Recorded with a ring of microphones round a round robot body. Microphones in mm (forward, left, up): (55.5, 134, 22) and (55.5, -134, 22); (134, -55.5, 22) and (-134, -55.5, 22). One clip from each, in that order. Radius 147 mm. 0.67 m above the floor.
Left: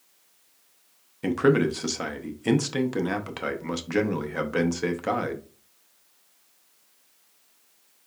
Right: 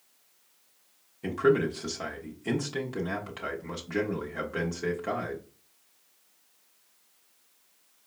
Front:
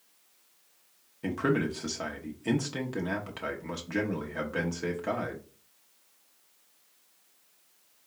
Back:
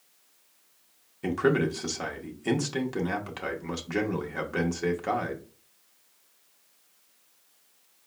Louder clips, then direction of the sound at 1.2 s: Left 3 dB, back 4 dB; 105° left.